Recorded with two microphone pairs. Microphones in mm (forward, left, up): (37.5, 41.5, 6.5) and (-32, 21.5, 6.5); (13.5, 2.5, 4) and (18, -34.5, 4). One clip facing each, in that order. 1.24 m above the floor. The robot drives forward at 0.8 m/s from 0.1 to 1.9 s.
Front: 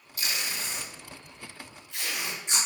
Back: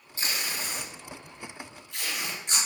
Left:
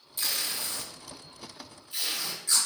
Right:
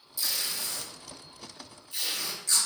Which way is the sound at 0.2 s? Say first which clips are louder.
Back 1 dB, left 1 dB; 135° left.